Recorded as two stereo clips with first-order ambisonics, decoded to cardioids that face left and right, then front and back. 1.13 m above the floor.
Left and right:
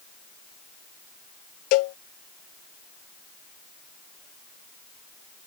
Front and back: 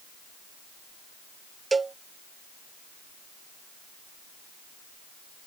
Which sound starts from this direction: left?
A cowbell, at 1.7 s.